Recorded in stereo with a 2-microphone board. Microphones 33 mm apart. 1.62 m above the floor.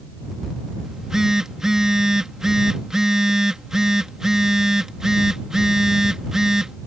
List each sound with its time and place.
0.8 s a phone buzzing: 15° right (ahead or behind)